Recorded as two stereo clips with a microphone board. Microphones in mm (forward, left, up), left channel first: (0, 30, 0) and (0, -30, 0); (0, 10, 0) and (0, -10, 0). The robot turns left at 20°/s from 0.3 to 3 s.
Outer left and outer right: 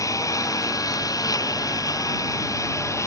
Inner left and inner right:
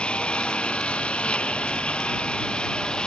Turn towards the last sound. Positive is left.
turn(degrees=55)